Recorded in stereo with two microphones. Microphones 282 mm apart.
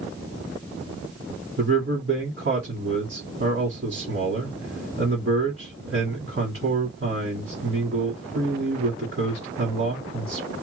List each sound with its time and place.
1.6 s a man speaking: 50° right (ahead or behind), 1.8 m